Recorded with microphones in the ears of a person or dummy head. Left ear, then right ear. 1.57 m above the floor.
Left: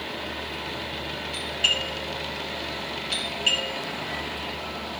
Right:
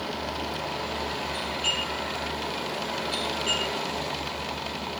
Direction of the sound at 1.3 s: 40° left (ahead or behind).